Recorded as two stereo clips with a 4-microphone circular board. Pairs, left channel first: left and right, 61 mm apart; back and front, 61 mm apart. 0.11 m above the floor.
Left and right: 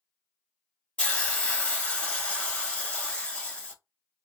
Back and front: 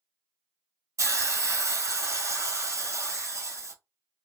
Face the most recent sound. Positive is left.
turn(degrees=20)